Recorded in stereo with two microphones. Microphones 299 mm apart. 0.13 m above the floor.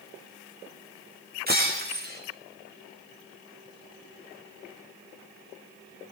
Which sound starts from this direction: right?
Breaking glass, at 1.5 s.